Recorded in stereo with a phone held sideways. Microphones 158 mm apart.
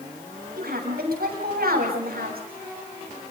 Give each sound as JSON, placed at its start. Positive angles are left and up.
{"t": 0.6, "sound": "a woman speaking", "side_deg": -80, "distance_m": 8.0}